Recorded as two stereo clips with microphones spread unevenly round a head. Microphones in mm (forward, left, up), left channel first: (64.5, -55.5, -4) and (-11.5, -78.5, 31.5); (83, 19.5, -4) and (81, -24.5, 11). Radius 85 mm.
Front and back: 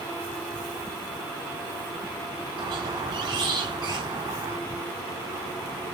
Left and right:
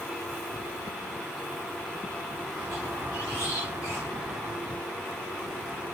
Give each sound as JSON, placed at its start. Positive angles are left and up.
{"t": 2.6, "sound": "a squeak", "azimuth_deg": -160, "distance_m": 1.6}